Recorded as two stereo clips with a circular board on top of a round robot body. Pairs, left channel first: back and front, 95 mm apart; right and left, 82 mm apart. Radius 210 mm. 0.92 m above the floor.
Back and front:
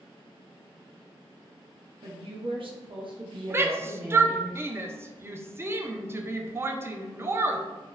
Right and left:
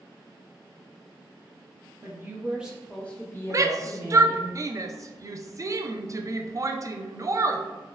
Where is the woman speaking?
35° left, 1.0 m; by 4.5 s 65° right, 1.2 m.